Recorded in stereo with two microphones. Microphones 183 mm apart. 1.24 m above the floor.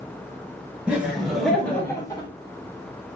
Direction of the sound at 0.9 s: 10° right (ahead or behind).